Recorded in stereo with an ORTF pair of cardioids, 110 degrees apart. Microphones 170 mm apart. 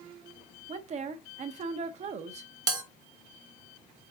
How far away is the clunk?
I don't hear a clunk.